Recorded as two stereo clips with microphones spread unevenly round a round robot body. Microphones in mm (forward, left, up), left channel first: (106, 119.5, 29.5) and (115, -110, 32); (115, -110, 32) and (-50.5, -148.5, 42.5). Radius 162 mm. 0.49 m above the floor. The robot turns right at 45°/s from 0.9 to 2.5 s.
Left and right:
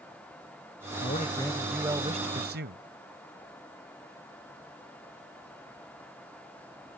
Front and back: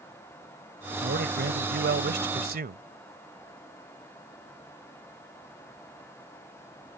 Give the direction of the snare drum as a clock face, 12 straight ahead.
I don't hear a snare drum.